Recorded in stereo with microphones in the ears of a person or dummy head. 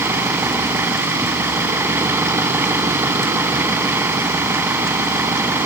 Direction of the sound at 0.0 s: 10° right (ahead or behind).